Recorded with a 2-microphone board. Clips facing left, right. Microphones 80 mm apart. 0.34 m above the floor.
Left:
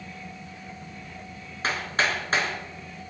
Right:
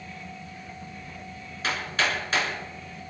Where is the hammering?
35° left (ahead or behind), 4 m.